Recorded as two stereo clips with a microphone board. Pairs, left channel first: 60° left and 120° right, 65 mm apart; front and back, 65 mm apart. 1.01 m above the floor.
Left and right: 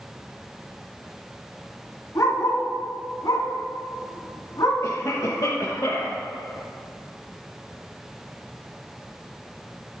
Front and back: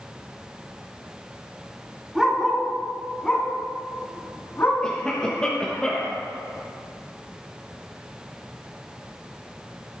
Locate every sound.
2.1 s a dog barking: 95° left, 3.5 m; by 4.7 s 50° left, 3.5 m
4.8 s a cough: 75° left, 1.4 m